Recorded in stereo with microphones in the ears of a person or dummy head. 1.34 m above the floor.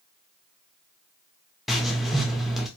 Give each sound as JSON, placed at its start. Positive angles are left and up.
{"t": 1.7, "sound": "writing", "side_deg": 0, "distance_m": 0.5}